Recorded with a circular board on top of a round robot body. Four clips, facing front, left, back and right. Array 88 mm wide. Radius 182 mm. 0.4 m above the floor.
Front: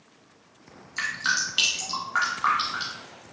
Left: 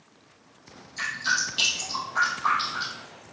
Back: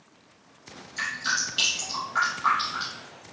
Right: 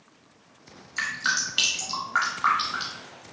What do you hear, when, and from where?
1.0 s dripping: 55° right, 0.6 m